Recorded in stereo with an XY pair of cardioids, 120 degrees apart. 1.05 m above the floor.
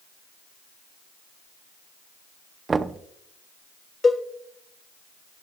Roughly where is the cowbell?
Ahead left.